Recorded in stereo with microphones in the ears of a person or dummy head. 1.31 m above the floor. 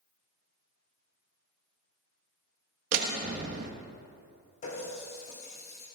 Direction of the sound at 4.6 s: 55° left (ahead or behind).